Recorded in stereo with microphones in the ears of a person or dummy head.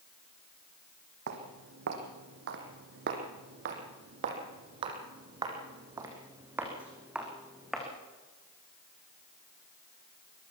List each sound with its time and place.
1.3 s footsteps: 65° right (ahead or behind), 3.5 m; by 7.9 s centre (ahead or behind), 4 m